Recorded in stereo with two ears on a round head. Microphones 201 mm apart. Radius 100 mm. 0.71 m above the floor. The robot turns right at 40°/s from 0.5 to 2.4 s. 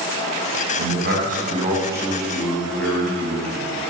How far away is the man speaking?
About 4.5 m.